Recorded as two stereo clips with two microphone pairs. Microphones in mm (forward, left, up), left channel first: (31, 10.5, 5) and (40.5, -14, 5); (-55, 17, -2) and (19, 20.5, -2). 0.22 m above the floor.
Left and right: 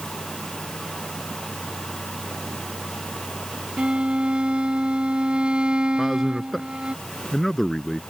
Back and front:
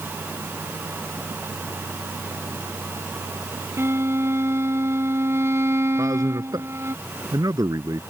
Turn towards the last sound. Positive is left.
turn(degrees=30)